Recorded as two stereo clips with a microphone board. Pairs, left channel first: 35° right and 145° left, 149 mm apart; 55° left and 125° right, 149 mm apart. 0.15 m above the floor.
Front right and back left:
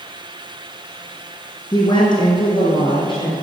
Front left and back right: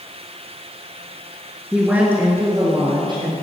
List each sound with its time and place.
1.7 s a woman speaking: 45° right, 1.4 m; by 3.3 s 80° right, 1.8 m